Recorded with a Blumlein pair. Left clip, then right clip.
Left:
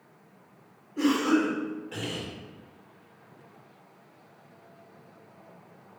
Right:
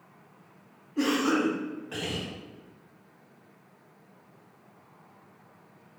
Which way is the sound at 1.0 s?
10° right.